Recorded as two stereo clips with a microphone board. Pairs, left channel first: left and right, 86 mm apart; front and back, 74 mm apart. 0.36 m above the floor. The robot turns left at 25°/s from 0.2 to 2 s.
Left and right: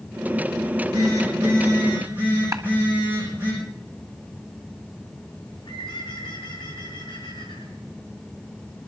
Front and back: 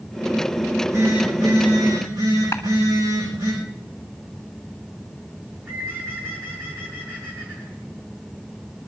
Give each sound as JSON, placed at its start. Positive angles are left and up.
{"t": 0.7, "sound": "a phone buzzing", "azimuth_deg": -125, "distance_m": 8.5}
{"t": 2.5, "sound": "a clap", "azimuth_deg": -50, "distance_m": 2.0}
{"t": 5.4, "sound": "a bird", "azimuth_deg": 115, "distance_m": 5.0}